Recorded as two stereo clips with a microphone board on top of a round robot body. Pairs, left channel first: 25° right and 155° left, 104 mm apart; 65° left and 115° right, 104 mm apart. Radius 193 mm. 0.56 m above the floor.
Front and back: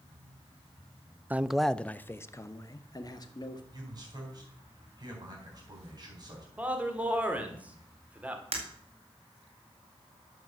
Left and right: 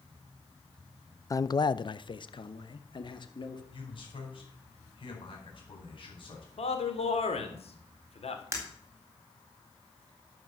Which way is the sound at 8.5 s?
175° right.